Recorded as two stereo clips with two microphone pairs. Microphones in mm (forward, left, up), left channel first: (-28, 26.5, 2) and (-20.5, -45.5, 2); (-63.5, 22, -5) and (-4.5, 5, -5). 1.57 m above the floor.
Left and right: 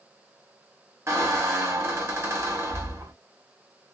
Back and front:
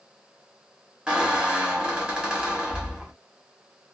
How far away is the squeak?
About 1.0 m.